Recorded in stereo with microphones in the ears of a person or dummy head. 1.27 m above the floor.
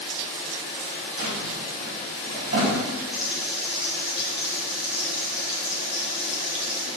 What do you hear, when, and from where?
1.2 s a drawer: 55° right (ahead or behind), 4.5 m
3.1 s frying: 5° right (ahead or behind), 1.5 m